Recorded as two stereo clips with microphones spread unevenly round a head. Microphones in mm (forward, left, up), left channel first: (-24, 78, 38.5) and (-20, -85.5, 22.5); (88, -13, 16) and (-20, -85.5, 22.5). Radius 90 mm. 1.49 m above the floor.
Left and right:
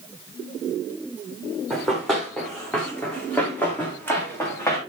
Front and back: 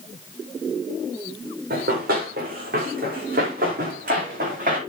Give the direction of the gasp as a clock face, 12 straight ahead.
No gasp in this recording.